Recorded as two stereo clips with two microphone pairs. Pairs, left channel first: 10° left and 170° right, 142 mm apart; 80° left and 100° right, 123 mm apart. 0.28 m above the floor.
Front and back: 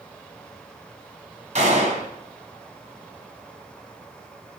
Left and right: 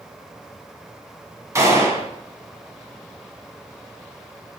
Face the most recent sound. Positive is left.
turn(degrees=-160)